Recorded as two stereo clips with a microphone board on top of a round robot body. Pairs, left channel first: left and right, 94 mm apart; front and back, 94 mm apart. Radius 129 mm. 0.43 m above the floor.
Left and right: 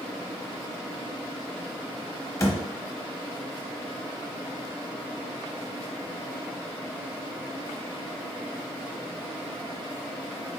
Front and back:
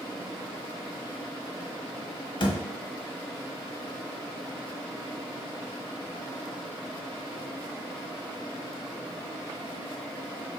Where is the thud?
30° left, 1.0 m.